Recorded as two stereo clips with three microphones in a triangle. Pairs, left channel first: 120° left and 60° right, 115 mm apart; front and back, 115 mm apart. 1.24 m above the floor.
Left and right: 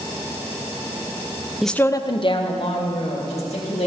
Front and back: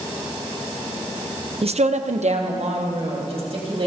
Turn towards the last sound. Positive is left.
turn(degrees=145)